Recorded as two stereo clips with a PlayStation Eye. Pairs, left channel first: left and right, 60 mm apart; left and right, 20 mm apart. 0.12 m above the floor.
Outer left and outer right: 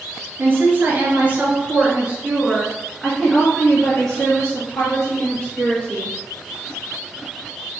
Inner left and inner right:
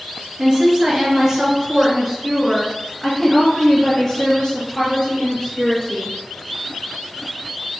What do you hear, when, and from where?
0.4 s a woman speaking: 45° right (ahead or behind), 1.6 m; by 6.2 s 30° left (ahead or behind), 2.5 m